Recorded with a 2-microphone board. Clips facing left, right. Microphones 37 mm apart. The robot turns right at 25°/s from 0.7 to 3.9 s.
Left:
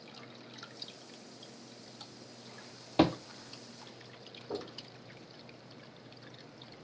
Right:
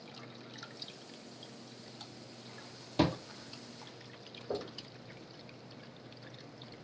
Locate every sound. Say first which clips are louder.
3.0 s a thud: left 4 dB; 40° left (ahead or behind), 0.5 m
4.5 s knocking: right 2 dB; 50° right (ahead or behind), 1.5 m